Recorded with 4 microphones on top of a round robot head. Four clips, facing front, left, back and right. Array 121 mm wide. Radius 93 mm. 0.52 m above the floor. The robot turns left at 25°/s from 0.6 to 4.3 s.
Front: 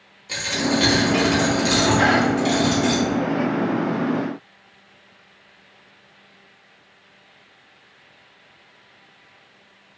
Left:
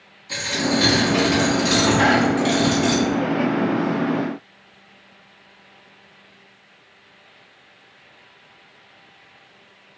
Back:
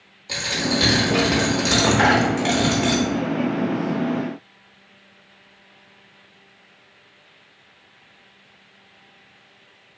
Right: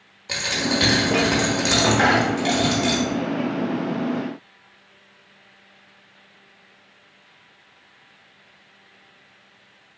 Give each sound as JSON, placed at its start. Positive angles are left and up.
{"t": 0.3, "sound": "a dropped coin", "azimuth_deg": -100, "distance_m": 0.8}